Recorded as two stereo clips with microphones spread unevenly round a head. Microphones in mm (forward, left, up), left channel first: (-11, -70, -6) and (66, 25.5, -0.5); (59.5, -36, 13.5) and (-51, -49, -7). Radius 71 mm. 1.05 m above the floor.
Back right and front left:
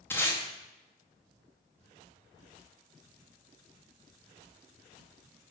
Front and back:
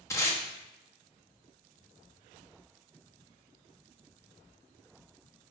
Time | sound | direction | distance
0.1 | tape being pulled | 55° right | 0.9 m